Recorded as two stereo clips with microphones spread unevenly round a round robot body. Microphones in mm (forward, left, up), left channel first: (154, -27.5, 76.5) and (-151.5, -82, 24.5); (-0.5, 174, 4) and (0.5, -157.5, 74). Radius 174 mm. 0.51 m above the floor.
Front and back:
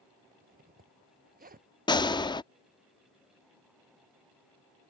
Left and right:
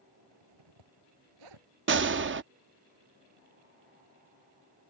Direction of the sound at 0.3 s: 110° right.